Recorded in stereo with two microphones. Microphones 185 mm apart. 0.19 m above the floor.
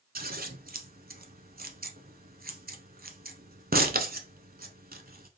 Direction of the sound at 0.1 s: 60° right (ahead or behind).